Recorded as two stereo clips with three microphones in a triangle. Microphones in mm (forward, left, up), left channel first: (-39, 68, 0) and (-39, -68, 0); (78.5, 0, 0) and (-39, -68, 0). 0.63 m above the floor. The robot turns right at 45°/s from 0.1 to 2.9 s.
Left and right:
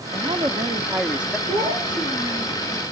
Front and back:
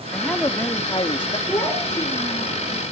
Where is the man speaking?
55° right, 0.9 m; by 1.4 s straight ahead, 0.9 m.